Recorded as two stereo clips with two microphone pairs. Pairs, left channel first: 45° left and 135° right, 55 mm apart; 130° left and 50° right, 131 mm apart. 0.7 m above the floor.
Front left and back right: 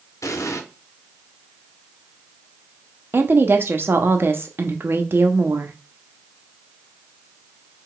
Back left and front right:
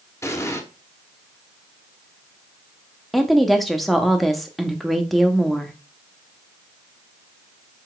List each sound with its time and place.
0.2 s an explosion: 60° left, 0.8 m
3.1 s a woman speaking: 140° right, 0.8 m